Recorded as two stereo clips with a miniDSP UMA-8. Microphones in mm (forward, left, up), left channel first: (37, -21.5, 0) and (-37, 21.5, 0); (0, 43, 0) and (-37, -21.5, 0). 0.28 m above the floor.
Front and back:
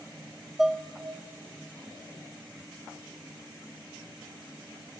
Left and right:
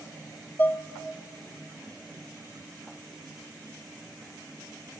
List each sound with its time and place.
0.6 s dishes clattering: 70° left, 0.7 m